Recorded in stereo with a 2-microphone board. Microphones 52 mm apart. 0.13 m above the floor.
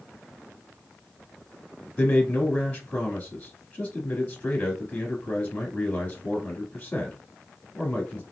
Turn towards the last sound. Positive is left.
turn(degrees=15)  # may be behind; listen again after turning